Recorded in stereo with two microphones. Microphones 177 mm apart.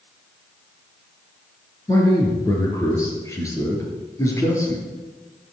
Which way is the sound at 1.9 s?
15° left (ahead or behind).